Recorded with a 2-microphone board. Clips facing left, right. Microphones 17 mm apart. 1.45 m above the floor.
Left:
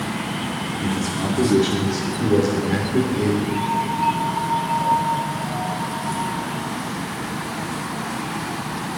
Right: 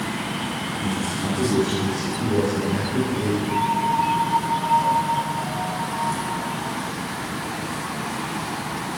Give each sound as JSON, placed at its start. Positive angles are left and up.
{"t": 0.8, "sound": "a man speaking", "side_deg": 80, "distance_m": 3.5}
{"t": 3.5, "sound": "a piano", "side_deg": -20, "distance_m": 8.5}